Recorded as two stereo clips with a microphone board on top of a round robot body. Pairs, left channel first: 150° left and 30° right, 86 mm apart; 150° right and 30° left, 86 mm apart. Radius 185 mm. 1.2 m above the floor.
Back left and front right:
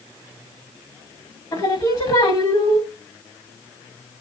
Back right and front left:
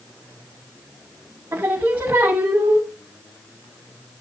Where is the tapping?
No tapping in this recording.